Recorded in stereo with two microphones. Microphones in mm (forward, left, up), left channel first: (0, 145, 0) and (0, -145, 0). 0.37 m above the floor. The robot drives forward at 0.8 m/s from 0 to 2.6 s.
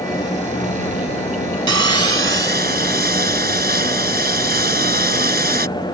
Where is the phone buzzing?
I don't hear a phone buzzing.